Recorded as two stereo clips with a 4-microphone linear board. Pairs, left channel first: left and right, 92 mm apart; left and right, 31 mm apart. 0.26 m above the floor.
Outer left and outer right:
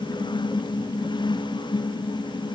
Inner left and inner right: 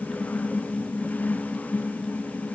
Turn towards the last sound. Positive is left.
No sound to turn to.